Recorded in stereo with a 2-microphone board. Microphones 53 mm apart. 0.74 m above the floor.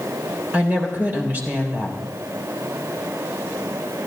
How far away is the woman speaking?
About 3 m.